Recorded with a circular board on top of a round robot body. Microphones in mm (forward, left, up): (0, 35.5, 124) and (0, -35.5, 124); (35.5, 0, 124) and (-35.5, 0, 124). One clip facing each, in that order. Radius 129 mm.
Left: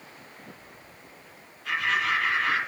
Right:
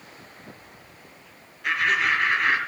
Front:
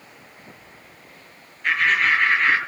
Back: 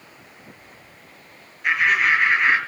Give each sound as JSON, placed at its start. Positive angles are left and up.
{"t": 1.6, "sound": "laughter", "azimuth_deg": -100, "distance_m": 6.0}